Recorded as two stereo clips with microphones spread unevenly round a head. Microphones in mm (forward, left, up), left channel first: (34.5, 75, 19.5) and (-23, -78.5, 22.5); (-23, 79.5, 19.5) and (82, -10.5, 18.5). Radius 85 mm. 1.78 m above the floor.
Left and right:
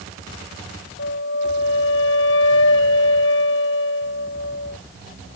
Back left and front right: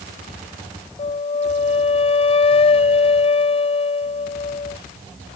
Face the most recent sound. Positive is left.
turn(degrees=95)